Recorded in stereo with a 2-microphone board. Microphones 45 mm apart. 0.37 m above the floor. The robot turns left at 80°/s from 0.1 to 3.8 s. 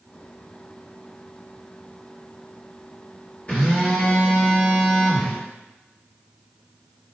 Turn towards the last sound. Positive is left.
turn(degrees=45)  # may be behind; listen again after turning